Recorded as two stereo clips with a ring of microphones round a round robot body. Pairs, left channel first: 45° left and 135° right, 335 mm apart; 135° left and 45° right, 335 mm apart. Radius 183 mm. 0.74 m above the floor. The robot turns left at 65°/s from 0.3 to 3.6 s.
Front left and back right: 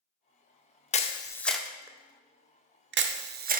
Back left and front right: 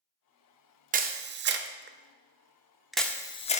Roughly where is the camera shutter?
Ahead.